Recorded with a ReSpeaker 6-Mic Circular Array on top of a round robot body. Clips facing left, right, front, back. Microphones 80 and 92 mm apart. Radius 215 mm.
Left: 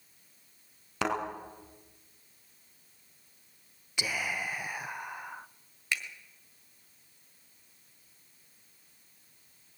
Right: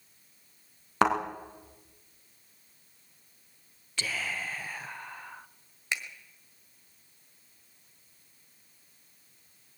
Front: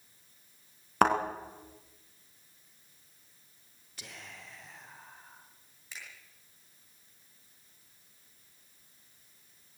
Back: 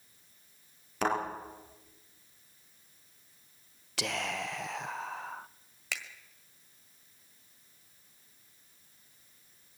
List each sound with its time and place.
1.0 s a thud: 40° right, 3.5 m
4.0 s whispering: 165° left, 0.6 m
5.9 s a finger snap: 160° right, 1.7 m